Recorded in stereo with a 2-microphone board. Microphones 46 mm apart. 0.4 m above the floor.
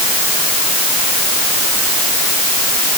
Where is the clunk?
I don't hear a clunk.